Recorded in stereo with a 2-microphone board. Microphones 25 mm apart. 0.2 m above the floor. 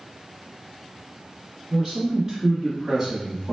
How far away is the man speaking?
About 1.6 m.